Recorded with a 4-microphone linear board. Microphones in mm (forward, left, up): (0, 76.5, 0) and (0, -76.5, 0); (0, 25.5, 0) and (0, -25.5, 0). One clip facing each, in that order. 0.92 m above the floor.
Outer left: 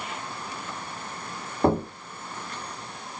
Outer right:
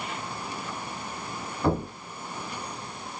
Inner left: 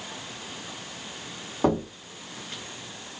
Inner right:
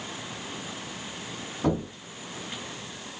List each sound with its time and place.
1.6 s knocking: 55° left (ahead or behind), 1.3 m